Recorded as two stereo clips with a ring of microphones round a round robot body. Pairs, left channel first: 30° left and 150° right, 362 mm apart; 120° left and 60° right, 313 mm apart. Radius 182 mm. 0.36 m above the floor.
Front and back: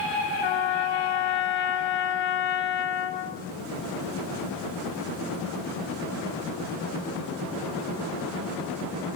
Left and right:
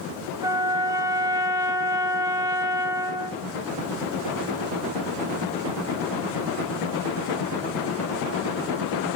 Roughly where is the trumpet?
Ahead.